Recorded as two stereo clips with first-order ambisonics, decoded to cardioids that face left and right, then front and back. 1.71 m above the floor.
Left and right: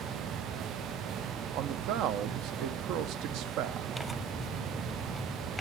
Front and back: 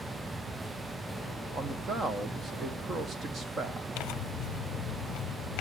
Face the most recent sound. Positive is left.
turn(degrees=-5)